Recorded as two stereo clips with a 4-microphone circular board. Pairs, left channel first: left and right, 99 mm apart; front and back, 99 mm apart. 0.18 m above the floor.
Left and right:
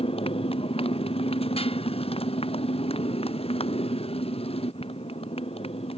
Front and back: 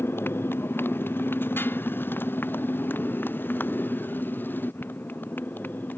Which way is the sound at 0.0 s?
65° left.